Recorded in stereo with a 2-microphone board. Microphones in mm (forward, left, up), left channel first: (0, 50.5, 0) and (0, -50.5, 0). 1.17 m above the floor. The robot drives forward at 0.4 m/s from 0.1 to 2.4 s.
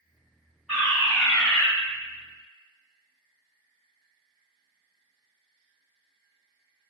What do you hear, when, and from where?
0.7 s a fire alarm: 5° right (ahead or behind), 1.5 m